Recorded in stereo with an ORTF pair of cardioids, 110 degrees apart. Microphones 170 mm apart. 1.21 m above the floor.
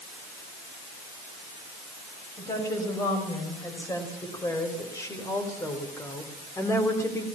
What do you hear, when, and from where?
2.4 s a woman speaking: 20° left, 6 m